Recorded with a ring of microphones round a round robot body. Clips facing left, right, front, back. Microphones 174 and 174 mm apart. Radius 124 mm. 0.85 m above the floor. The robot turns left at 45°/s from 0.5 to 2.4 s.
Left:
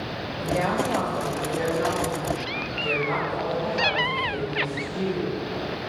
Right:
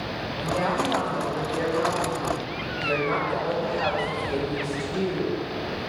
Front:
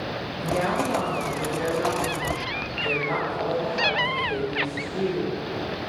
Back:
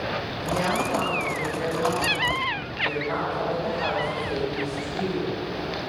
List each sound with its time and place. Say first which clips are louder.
0.4 s a woman speaking: left 1 dB, front 2 dB; 15° left, 1.7 m; by 5.3 s 70° right, 1.7 m